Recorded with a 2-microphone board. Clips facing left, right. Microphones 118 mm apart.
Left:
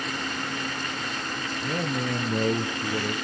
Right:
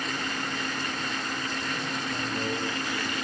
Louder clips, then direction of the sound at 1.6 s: Left 5 dB; 55° left (ahead or behind).